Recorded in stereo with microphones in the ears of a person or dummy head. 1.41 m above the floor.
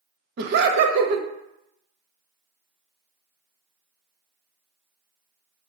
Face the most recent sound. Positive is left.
turn(degrees=-45)  # may be behind; listen again after turning